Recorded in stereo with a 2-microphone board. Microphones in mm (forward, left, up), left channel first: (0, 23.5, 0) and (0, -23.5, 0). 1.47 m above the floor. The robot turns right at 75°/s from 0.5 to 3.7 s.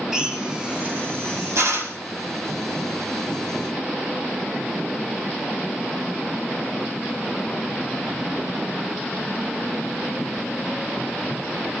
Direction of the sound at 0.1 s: 10° right (ahead or behind).